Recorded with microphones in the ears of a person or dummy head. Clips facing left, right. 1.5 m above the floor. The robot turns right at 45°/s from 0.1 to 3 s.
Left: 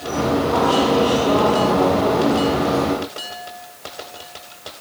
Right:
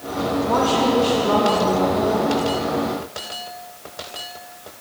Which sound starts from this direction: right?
A woman speaking, at 0.4 s.